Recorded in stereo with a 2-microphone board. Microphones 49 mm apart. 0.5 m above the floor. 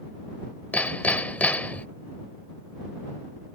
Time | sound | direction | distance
0.7 | hammering | 30° left (ahead or behind) | ?